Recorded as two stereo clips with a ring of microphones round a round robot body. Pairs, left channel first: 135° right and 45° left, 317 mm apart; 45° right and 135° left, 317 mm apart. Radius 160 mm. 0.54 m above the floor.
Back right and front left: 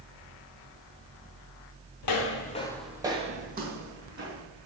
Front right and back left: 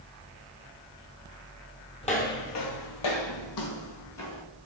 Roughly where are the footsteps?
Behind right.